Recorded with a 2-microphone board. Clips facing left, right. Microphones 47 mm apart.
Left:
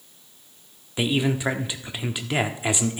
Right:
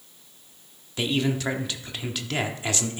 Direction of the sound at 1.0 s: 15° left (ahead or behind).